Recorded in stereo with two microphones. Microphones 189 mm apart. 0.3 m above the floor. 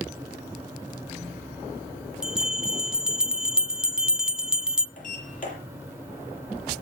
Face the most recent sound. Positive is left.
turn(degrees=45)  # may be behind; listen again after turning